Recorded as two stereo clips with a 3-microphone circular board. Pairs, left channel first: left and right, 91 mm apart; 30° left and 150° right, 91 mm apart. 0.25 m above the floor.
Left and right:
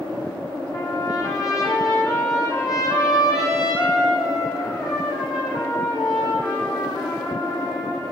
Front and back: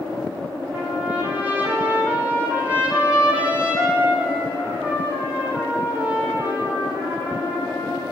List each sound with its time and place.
0.7 s a trumpet: 140° left, 9 m